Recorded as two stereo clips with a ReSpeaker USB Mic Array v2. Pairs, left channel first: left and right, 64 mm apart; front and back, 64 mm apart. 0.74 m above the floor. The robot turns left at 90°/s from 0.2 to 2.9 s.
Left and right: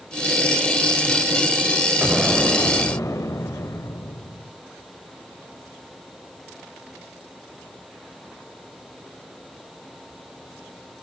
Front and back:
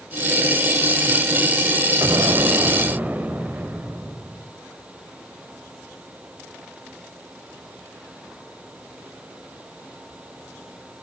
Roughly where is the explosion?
Behind.